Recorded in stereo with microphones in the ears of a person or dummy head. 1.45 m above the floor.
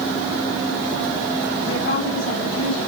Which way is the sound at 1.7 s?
80° left.